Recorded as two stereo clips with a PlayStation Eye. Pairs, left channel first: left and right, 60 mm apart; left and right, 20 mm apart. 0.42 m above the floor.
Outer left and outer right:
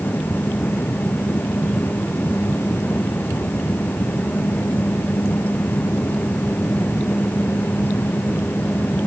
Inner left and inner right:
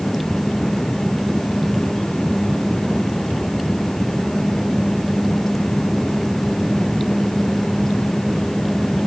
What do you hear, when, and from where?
Only background noise.